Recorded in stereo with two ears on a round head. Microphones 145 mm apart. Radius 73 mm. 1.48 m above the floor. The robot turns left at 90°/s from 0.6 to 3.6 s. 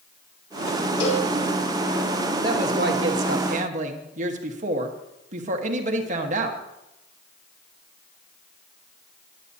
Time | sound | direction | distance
1.0 | a cowbell | 80° left | 2.5 m
2.4 | a woman speaking | 25° right | 1.3 m